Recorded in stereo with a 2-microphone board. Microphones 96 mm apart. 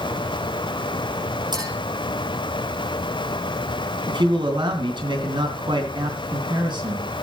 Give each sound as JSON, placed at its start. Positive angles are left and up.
{"t": 1.5, "sound": "a clink", "side_deg": -50, "distance_m": 5.5}
{"t": 4.1, "sound": "a man speaking", "side_deg": -55, "distance_m": 3.0}